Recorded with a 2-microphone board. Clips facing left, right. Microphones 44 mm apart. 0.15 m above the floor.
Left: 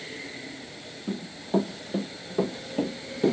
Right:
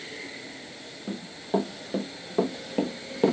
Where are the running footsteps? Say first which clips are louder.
Even; 15° right (ahead or behind), 2.5 m; by 3.3 s 40° right (ahead or behind), 1.1 m.